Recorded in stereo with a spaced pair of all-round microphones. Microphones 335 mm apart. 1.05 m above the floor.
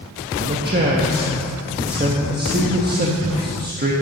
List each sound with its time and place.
0.4 s a man speaking: 30° right (ahead or behind), 1.2 m